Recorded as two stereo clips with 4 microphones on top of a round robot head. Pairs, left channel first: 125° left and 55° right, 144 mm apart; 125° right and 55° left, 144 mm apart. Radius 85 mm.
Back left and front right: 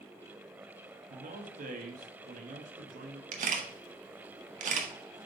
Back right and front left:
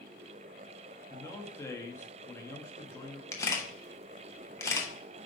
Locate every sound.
1.1 s a man speaking: 55° right, 1.1 m
3.3 s a camera shutter: 55° right, 1.2 m